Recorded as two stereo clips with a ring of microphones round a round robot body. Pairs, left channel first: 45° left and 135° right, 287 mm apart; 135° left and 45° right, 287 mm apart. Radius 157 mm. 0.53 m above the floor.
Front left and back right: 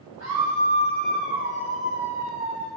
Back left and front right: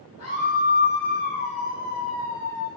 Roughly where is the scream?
Behind.